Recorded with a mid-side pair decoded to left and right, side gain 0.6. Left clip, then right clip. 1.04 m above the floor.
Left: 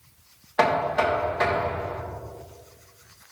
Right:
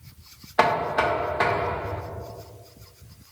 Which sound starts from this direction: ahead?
Knocking, at 0.6 s.